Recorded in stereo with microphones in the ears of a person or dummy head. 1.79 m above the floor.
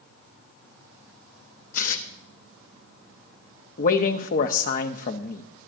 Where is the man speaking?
40° left (ahead or behind), 0.8 m.